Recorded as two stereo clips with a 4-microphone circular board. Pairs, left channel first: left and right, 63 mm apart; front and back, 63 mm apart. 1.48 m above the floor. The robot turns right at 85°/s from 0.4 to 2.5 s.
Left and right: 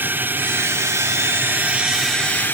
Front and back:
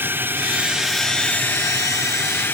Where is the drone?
135° right; by 2.5 s 40° left.